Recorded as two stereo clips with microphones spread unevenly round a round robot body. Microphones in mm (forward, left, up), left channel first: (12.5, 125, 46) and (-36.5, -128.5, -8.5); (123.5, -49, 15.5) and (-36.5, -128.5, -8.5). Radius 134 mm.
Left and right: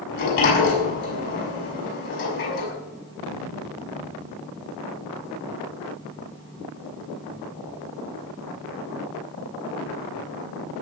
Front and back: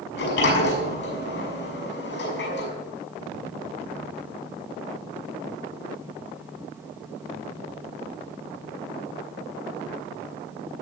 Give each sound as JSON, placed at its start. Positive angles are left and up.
{"t": 0.1, "sound": "a sliding door", "azimuth_deg": 25, "distance_m": 6.0}